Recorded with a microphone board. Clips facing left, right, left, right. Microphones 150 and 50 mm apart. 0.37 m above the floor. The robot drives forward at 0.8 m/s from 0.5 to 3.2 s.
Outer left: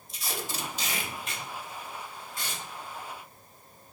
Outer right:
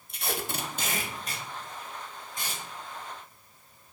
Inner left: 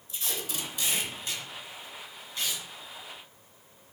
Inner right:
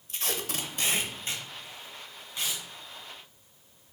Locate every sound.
0.1 s tape being pulled: 55° right (ahead or behind), 0.6 m; by 2.6 s 15° right (ahead or behind), 1.8 m